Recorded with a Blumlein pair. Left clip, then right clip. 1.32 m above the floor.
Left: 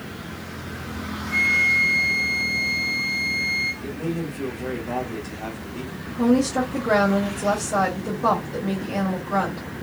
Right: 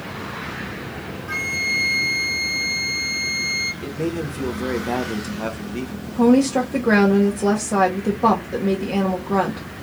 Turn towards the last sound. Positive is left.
turn(degrees=-65)